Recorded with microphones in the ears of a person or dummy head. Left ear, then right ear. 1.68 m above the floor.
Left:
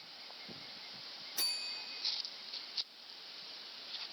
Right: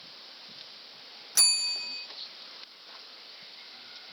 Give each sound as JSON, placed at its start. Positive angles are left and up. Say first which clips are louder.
{"t": 1.4, "sound": "a bell", "louder": "right 12 dB", "side_deg": -55, "distance_m": 1.0}